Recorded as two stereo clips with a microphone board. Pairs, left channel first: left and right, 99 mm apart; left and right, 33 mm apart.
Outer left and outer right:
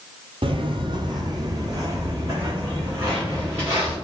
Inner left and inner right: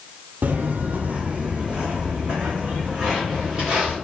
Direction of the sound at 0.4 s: 65° right (ahead or behind).